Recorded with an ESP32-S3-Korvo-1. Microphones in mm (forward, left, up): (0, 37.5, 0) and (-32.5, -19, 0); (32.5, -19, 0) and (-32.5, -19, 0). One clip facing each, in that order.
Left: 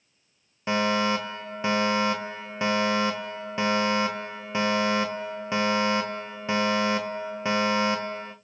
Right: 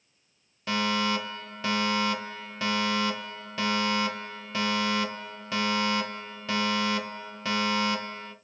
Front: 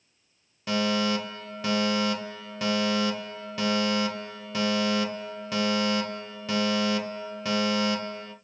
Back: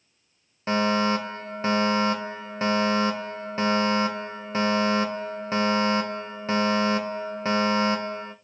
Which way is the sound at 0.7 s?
125° left.